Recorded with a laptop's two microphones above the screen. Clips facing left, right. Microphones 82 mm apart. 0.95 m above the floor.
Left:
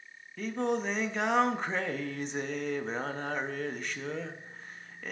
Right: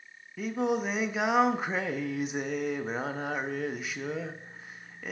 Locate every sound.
0.4 s singing: 5° right (ahead or behind), 0.5 m